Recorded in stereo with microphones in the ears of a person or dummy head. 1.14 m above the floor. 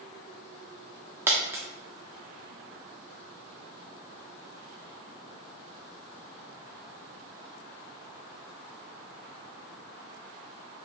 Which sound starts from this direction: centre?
A dropped coin, at 1.3 s.